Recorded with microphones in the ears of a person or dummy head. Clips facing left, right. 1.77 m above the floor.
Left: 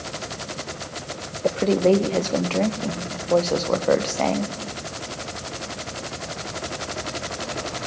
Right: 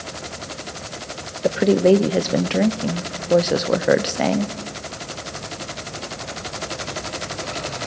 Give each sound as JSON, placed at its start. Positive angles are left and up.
{"t": 1.4, "sound": "a woman speaking", "side_deg": -20, "distance_m": 0.8}